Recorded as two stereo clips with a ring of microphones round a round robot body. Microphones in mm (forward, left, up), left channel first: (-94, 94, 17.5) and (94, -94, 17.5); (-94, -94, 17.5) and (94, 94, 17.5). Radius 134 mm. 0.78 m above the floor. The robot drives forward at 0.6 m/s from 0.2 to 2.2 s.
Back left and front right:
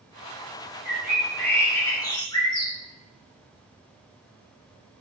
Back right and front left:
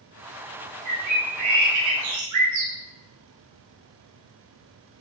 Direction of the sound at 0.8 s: 45° left.